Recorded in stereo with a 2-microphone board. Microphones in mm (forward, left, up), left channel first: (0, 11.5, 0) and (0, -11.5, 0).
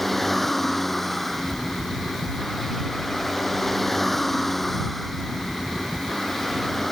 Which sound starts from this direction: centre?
A vehicle, at 0.0 s.